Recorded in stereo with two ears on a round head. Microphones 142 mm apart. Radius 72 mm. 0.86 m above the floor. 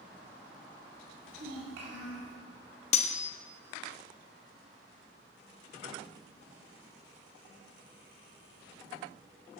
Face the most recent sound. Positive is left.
turn(degrees=40)  # may be behind; listen again after turning